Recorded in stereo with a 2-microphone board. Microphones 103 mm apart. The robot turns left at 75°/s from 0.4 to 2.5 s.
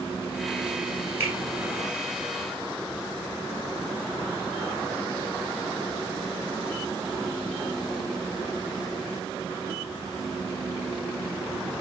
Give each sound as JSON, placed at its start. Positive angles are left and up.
{"t": 1.2, "sound": "a finger snap", "side_deg": -20, "distance_m": 2.0}